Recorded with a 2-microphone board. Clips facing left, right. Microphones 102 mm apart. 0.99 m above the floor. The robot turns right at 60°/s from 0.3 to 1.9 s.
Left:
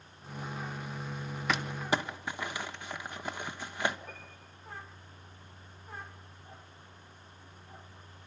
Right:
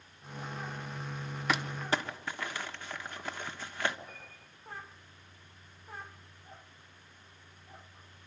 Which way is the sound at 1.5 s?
Centre (ahead or behind).